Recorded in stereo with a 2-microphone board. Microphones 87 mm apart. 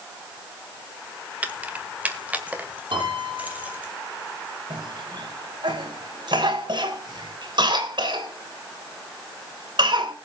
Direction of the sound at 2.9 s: 75° right (ahead or behind).